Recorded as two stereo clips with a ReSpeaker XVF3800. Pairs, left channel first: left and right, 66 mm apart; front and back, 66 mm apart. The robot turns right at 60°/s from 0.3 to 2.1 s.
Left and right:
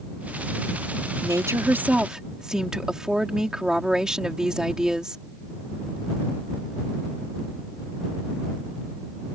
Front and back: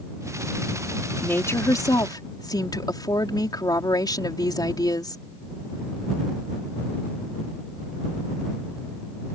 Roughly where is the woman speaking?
Ahead right.